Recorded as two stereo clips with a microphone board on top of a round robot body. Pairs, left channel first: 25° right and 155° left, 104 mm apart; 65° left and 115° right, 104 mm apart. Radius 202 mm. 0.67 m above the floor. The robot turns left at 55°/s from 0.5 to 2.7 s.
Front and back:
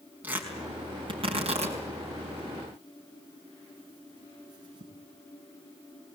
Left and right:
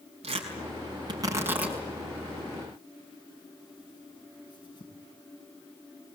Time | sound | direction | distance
0.2 | tearing paper | 130° right | 5 m